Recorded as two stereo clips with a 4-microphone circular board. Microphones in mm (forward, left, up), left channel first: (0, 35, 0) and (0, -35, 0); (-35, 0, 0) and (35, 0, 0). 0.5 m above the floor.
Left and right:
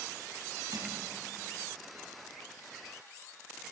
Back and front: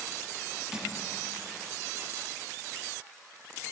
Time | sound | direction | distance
0.7 | crushing | 75° right | 5.5 m